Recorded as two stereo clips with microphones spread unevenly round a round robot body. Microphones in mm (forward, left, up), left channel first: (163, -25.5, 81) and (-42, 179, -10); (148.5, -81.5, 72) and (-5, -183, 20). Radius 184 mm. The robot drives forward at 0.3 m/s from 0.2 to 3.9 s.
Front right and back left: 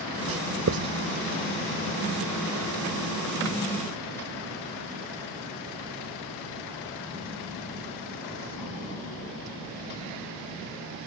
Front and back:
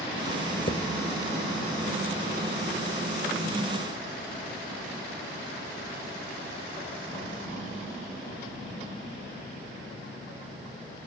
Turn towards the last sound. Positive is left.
turn(degrees=115)